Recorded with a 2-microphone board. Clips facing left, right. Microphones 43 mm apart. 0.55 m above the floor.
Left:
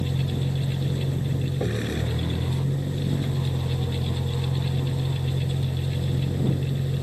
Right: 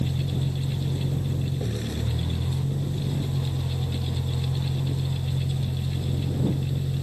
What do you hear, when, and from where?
0.0 s a vehicle: 40° left (ahead or behind)